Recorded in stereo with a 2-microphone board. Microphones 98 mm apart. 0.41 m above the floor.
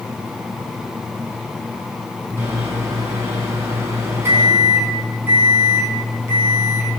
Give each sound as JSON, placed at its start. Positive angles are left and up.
{"t": 2.4, "sound": "a microwave", "side_deg": -30, "distance_m": 3.5}